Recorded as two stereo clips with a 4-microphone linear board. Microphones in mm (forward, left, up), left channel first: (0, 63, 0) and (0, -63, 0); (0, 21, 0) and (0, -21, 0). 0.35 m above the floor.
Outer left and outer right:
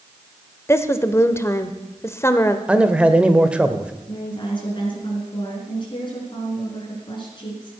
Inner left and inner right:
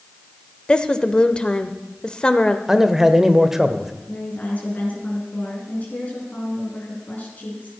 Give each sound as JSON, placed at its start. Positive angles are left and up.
{"t": 0.7, "sound": "a woman speaking", "side_deg": 20, "distance_m": 0.9}
{"t": 2.7, "sound": "a man speaking", "side_deg": -10, "distance_m": 0.9}
{"t": 4.1, "sound": "a woman speaking", "side_deg": 40, "distance_m": 5.0}